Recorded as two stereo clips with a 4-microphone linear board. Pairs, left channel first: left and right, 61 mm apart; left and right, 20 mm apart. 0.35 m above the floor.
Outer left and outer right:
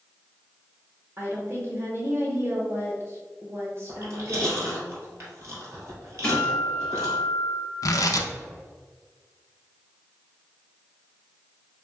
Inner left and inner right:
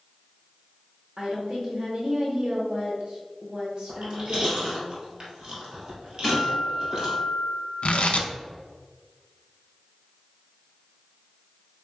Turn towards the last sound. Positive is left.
turn(degrees=75)  # may be behind; listen again after turning